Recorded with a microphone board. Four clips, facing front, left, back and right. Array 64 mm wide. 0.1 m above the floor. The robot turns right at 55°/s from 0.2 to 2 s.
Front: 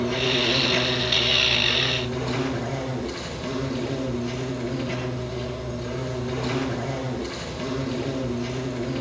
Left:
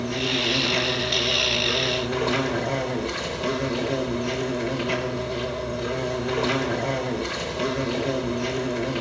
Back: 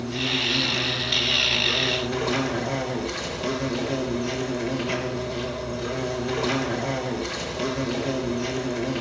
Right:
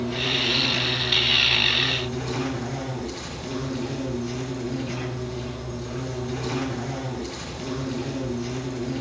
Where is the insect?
20° left, 4 m; by 9.0 s 120° left, 4 m.